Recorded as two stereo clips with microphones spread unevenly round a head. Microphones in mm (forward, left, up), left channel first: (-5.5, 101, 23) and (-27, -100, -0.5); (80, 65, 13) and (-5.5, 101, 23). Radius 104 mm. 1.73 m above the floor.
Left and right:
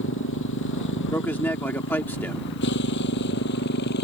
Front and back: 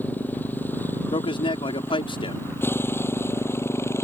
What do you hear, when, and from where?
0.0 s a motorcycle: 50° left; by 4.0 s 40° left
1.1 s a man speaking: 5° left